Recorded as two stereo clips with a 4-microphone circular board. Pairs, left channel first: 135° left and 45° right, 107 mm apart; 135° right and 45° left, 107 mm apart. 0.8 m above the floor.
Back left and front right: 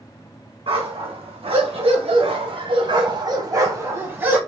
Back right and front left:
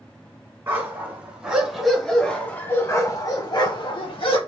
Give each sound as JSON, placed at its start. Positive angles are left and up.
{"t": 0.7, "sound": "a dog barking", "azimuth_deg": -25, "distance_m": 1.6}